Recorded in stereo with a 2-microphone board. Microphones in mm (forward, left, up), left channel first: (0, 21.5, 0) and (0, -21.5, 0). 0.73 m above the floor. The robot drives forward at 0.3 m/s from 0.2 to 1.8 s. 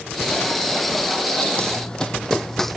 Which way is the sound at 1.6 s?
25° left (ahead or behind).